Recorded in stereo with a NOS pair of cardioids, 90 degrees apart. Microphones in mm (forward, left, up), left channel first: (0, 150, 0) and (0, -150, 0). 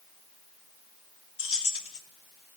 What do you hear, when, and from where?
1.4 s keys jangling: 45° left, 1.4 m